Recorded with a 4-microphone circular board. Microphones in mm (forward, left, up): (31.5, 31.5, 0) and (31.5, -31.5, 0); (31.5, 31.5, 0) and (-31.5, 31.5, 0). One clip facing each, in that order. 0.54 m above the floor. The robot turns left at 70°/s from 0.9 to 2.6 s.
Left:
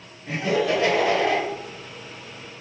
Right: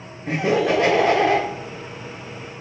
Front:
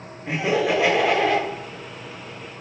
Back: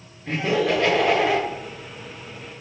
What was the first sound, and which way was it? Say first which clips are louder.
Laughter: right 3 dB, even; 75° right.